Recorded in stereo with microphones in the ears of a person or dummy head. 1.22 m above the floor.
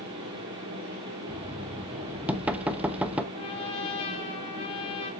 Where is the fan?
25° right (ahead or behind), 0.9 m.